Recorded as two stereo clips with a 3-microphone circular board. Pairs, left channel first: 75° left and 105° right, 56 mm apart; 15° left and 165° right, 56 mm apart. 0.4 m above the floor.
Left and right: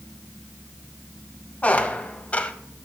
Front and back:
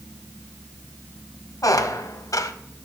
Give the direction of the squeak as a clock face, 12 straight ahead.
12 o'clock.